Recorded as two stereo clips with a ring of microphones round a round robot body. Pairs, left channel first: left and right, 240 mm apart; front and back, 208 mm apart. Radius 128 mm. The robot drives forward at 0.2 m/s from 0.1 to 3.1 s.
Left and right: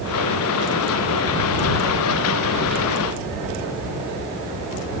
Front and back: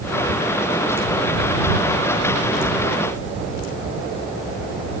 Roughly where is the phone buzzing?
I don't hear a phone buzzing.